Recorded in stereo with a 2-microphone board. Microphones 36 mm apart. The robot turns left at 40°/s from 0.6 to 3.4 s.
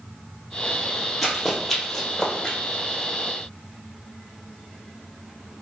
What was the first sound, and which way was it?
Running footsteps, centre (ahead or behind).